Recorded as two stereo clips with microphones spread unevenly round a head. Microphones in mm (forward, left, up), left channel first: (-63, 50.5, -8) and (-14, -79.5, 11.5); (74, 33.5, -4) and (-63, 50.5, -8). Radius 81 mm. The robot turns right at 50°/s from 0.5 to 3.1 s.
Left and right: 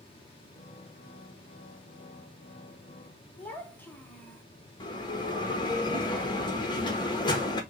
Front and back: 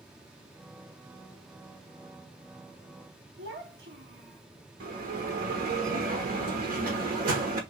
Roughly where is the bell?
Behind.